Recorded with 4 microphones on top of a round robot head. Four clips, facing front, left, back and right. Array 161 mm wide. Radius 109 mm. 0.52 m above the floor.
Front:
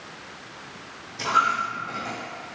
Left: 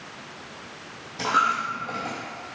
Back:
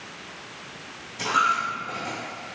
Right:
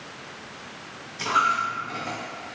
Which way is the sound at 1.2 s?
85° left.